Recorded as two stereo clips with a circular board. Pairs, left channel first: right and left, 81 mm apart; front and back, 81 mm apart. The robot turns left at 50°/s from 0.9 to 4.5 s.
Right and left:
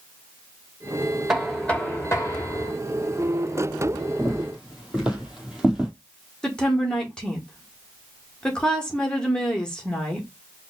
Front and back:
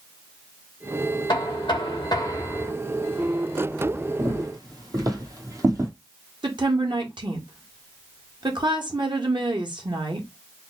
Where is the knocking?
5° left, 1.4 m; by 2.7 s 65° right, 1.4 m.